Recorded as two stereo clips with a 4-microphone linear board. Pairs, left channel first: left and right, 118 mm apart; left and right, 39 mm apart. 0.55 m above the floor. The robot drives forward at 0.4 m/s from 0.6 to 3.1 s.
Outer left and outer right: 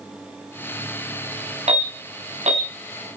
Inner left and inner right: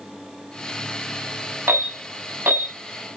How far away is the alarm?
About 6 m.